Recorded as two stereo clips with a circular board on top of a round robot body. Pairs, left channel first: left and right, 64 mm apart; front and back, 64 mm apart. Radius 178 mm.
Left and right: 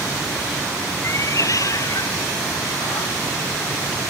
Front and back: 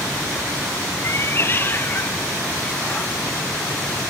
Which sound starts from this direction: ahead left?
A cat meowing, at 1.0 s.